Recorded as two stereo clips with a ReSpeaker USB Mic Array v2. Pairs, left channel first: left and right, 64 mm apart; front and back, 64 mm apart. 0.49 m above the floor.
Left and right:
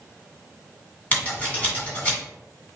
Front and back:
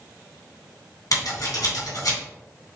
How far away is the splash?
I don't hear a splash.